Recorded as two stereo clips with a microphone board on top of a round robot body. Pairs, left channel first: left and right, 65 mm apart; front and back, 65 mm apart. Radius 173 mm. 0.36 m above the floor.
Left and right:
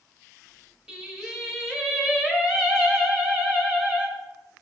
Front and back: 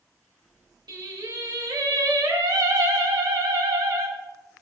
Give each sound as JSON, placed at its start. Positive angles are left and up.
{"t": 0.9, "sound": "singing", "azimuth_deg": -170, "distance_m": 1.5}